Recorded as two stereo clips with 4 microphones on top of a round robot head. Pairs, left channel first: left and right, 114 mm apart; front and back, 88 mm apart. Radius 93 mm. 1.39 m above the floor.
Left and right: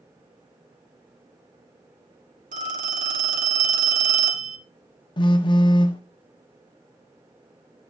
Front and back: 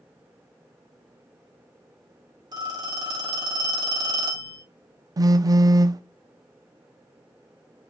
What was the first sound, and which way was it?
A phone ringing, 120° right.